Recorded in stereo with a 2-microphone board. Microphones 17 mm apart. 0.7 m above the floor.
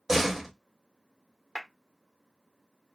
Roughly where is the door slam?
Centre.